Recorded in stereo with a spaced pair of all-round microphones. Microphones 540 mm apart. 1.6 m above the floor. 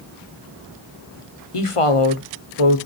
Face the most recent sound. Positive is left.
turn(degrees=80)